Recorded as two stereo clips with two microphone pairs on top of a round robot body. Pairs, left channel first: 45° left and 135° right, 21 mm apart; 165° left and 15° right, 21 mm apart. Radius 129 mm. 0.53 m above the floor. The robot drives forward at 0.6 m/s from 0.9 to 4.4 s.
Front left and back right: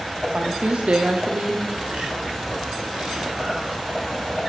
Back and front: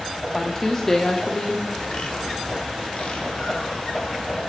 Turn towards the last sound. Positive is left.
turn(degrees=-170)